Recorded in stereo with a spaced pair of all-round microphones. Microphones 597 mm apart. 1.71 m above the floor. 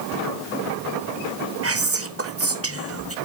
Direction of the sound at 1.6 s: 25° right (ahead or behind).